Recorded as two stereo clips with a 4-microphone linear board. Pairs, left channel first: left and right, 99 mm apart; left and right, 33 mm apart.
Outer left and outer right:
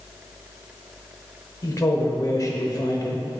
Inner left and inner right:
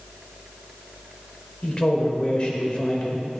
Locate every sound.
1.6 s a man speaking: 40° left (ahead or behind), 1.3 m